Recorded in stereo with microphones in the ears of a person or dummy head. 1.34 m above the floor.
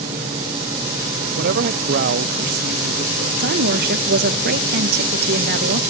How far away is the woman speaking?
About 1.6 m.